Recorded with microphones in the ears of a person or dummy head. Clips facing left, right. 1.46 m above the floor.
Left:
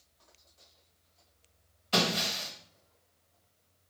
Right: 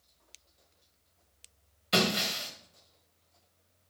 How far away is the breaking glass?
About 1.6 m.